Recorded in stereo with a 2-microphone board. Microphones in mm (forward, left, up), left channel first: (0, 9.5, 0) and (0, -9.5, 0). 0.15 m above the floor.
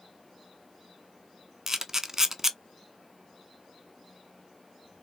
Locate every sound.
1.7 s a camera shutter: 20° right (ahead or behind), 0.7 m